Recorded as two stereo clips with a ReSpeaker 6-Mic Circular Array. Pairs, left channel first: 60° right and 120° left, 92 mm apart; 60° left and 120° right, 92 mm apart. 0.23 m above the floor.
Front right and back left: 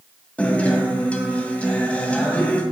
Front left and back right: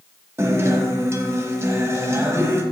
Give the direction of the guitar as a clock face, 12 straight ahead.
4 o'clock.